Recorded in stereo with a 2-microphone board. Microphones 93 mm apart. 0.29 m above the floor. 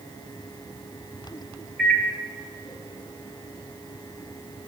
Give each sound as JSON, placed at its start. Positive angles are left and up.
{"t": 1.8, "sound": "a microwave", "side_deg": 5, "distance_m": 0.7}